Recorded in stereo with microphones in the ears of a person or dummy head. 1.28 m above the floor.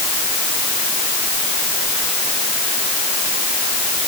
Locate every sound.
Only background noise.